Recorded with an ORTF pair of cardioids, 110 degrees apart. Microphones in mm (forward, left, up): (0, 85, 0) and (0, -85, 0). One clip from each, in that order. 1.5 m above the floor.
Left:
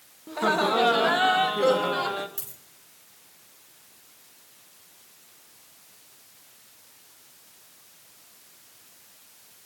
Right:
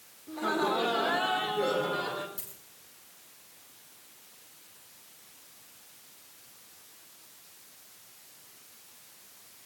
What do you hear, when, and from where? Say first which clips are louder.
0.3 s laughter: left 6 dB; 65° left, 2 m; by 2.3 s 55° left, 3 m
2.4 s a dropped coin: left 4 dB; 70° left, 5 m